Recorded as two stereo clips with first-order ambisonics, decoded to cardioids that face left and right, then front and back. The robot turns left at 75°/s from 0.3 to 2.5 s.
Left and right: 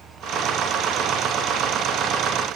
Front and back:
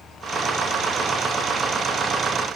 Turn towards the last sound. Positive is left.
No sound to turn to.